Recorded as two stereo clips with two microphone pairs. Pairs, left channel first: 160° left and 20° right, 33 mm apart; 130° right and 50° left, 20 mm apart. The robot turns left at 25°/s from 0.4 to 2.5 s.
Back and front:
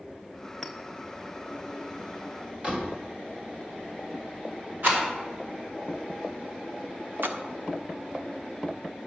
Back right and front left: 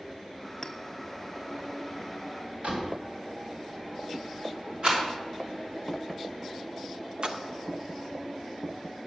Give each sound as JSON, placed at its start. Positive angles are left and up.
{"t": 0.6, "sound": "a clink", "azimuth_deg": -125, "distance_m": 0.7}
{"t": 2.6, "sound": "a door slam", "azimuth_deg": 30, "distance_m": 2.5}
{"t": 4.8, "sound": "a rattle", "azimuth_deg": 5, "distance_m": 3.0}
{"t": 7.2, "sound": "a splash", "azimuth_deg": 0, "distance_m": 0.7}